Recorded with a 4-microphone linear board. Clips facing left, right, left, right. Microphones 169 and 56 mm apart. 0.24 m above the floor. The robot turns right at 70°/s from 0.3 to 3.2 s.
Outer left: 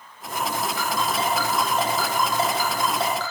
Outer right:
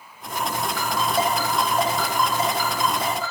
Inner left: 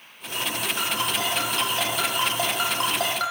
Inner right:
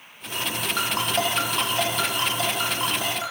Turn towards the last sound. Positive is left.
turn(degrees=85)